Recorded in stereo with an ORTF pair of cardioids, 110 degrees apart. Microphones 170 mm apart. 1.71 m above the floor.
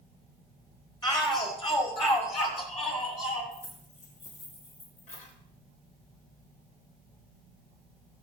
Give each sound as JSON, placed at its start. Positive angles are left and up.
{"t": 1.0, "sound": "a shout", "azimuth_deg": 25, "distance_m": 4.5}
{"t": 3.5, "sound": "keys jangling", "azimuth_deg": 50, "distance_m": 4.5}